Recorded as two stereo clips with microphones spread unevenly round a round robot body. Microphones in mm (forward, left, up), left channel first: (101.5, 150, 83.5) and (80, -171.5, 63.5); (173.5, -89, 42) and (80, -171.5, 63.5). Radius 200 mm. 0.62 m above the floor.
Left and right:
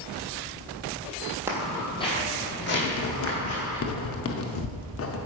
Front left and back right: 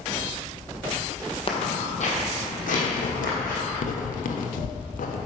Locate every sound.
1.5 s footsteps: 10° right, 1.4 m; by 3.8 s 45° left, 3 m
2.8 s writing: 35° left, 0.7 m